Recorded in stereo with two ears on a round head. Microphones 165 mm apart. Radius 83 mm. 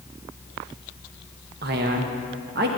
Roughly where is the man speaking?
Right.